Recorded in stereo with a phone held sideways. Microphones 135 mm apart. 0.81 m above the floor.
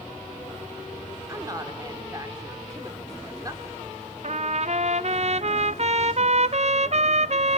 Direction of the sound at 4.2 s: 55° right (ahead or behind).